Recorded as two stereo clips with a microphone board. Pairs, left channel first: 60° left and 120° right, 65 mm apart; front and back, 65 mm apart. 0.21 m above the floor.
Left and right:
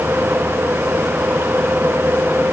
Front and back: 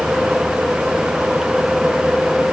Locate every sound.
Only background noise.